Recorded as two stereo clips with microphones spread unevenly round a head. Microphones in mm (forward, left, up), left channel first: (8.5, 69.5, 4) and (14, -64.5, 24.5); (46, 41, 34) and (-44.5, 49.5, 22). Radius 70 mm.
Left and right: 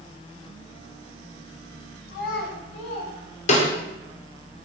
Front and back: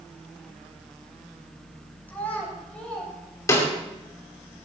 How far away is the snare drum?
About 2.5 m.